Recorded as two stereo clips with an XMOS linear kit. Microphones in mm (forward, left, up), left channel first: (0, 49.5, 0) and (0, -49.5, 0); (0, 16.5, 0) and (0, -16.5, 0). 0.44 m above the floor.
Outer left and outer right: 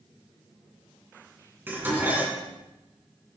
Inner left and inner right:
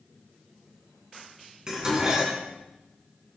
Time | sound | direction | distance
1.7 | dishes clattering | 20° right (ahead or behind) | 3 m